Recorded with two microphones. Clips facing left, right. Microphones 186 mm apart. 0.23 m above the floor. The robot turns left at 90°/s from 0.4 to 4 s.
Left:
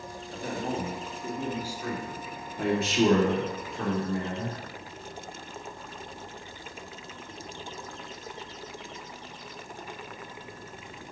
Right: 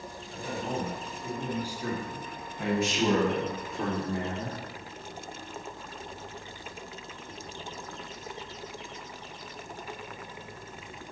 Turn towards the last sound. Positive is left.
turn(degrees=-25)